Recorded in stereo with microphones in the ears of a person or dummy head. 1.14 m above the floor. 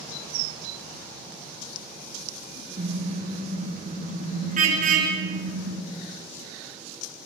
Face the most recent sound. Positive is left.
turn(degrees=-50)  # may be behind; listen again after turning